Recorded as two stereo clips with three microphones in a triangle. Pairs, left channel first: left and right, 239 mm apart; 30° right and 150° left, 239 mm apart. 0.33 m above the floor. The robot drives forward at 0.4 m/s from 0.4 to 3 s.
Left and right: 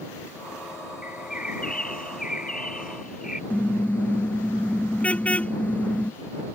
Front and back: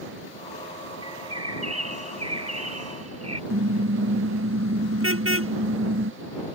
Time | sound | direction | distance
1.0 | a bird | 145° left | ?
3.5 | a car horn | 175° left | ?